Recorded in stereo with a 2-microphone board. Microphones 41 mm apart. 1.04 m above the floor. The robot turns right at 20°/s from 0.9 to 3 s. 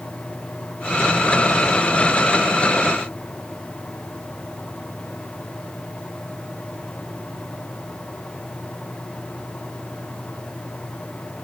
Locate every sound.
Only background noise.